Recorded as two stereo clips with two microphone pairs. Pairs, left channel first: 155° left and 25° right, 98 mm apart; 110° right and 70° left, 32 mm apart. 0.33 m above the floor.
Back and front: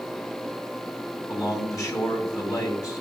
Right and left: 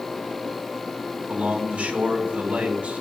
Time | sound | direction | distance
1.3 | a man speaking | 110° left | 3 m